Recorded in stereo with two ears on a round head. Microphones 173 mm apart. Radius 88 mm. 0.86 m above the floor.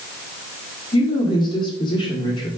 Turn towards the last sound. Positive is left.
turn(degrees=25)  # may be behind; listen again after turning